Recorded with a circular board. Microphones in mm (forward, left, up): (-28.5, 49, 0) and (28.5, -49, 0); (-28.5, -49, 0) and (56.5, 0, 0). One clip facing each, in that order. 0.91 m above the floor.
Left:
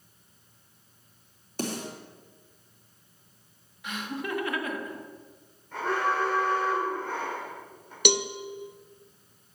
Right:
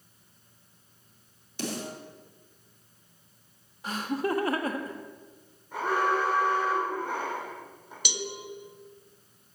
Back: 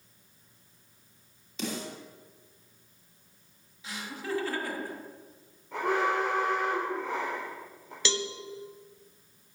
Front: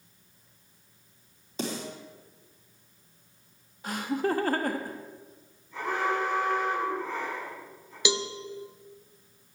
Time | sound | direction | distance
1.6 | a snare drum | 80° left | 3 m
3.8 | laughter | 10° right | 1.1 m
5.7 | an alarm | 140° right | 4 m
8.1 | a cowbell | 105° left | 0.5 m